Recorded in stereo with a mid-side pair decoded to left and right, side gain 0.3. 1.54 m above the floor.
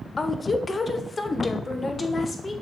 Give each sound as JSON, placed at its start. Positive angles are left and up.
{"t": 0.2, "sound": "a woman speaking", "azimuth_deg": 45, "distance_m": 0.7}